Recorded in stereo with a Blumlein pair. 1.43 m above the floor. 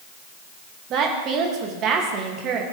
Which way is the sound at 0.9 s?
30° right.